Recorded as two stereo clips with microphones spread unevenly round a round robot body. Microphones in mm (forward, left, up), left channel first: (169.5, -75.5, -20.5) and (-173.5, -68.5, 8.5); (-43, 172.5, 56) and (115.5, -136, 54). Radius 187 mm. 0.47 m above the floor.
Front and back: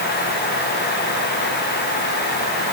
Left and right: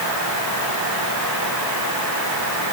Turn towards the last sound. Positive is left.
No sound to turn to.